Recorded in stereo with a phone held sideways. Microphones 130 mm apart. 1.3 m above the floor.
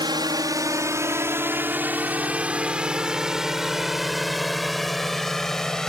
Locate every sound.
0.0 s a drone: 35° right (ahead or behind); by 5.9 s 5° left (ahead or behind)